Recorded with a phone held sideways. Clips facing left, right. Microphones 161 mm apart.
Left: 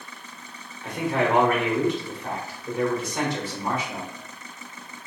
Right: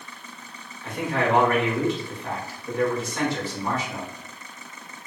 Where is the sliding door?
No sliding door in this recording.